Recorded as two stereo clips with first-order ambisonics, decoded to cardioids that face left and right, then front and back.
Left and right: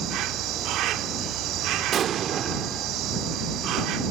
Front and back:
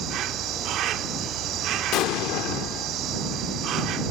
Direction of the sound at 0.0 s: 135° right.